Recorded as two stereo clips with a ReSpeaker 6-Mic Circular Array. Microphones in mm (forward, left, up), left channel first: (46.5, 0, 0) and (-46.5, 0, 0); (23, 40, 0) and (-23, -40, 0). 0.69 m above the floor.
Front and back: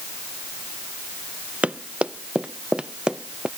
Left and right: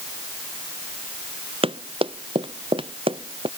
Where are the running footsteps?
105° right; by 3.5 s 100° right.